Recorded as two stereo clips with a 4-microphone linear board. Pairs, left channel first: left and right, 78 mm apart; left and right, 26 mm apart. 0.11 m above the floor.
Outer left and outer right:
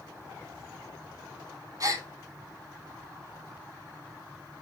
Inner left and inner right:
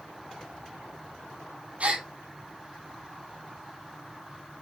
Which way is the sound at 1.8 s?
50° right (ahead or behind).